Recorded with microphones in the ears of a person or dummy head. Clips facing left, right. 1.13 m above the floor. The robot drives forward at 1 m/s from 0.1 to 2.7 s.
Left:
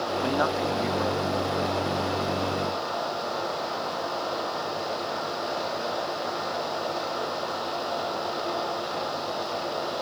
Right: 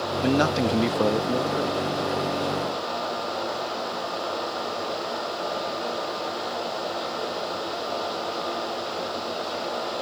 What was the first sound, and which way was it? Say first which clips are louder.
A man speaking: right 6 dB; 25° right (ahead or behind).